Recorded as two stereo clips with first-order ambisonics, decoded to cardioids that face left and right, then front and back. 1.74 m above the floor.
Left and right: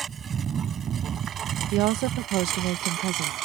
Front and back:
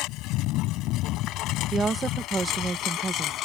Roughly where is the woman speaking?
Right.